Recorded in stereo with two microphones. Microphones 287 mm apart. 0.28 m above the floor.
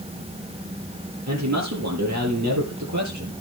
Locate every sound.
1.3 s a man speaking: 65° right (ahead or behind), 8.5 m; by 3.3 s 75° right (ahead or behind), 8 m